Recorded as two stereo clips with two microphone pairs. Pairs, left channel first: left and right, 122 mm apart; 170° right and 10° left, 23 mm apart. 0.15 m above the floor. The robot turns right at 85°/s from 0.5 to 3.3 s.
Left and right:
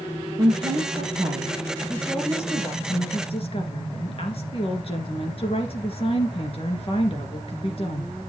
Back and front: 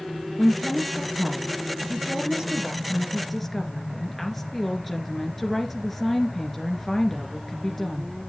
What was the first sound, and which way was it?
A woman speaking, 135° right.